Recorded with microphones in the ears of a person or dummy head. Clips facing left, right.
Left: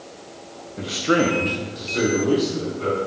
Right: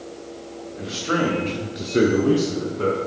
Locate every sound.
0.8 s a man speaking: 45° left (ahead or behind), 1.6 m; by 3.0 s 85° right, 2 m